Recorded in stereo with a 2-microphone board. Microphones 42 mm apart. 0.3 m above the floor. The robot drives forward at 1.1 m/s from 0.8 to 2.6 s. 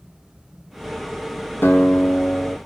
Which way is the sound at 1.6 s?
65° left (ahead or behind).